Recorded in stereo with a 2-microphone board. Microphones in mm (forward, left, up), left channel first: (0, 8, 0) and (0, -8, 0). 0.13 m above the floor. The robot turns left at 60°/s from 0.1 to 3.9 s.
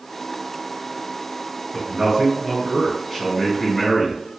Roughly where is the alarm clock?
No alarm clock in this recording.